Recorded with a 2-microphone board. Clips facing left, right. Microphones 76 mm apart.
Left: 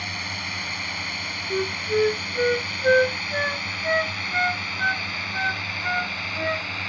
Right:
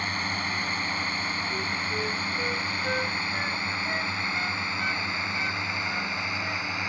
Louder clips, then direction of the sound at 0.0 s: Right 3 dB; 40° right (ahead or behind).